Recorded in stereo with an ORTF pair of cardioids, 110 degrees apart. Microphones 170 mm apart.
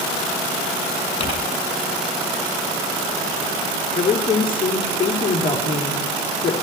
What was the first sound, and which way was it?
Crumpling, 35° left.